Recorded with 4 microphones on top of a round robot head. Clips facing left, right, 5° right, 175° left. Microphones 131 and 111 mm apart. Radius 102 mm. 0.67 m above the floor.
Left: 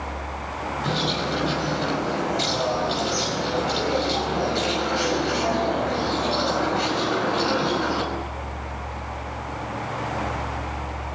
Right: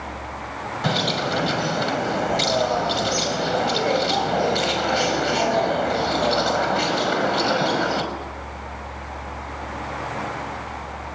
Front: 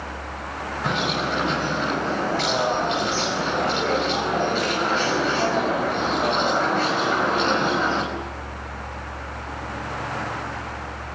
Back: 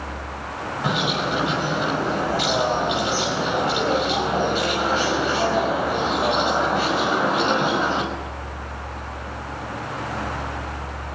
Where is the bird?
105° right, 5.5 m.